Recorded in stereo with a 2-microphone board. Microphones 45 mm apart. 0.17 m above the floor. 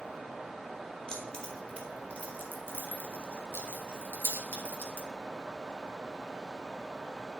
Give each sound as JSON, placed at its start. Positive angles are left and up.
{"t": 1.1, "sound": "keys jangling", "side_deg": 20, "distance_m": 2.5}